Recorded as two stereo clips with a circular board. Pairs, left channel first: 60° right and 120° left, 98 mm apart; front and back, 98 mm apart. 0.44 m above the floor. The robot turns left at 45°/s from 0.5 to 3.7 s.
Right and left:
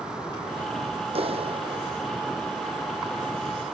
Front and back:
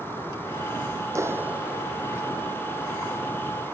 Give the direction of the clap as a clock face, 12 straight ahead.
8 o'clock.